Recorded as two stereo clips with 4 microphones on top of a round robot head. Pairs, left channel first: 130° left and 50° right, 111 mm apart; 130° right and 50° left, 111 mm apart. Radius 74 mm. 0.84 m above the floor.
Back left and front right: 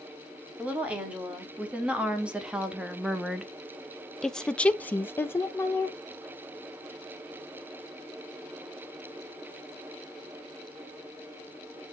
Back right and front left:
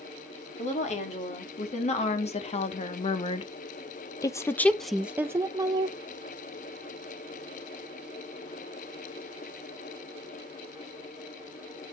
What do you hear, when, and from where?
0.6 s a woman speaking: 125° right, 2 m; by 6.0 s 70° left, 0.8 m